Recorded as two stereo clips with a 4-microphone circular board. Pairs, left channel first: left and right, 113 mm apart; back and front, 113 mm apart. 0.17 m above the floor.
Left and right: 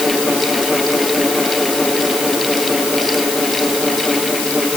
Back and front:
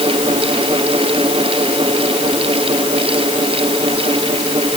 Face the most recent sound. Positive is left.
No sound to turn to.